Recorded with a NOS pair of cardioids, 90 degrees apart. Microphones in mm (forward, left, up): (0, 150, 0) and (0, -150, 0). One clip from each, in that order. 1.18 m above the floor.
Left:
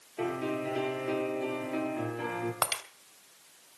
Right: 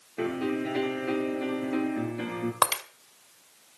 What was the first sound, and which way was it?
A piano, 65° right.